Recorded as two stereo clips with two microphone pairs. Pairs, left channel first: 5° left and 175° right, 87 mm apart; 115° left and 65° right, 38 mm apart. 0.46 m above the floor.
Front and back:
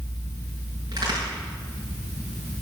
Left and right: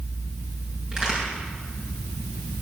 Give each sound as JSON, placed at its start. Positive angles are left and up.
{"t": 0.9, "sound": "a crack", "azimuth_deg": -135, "distance_m": 7.0}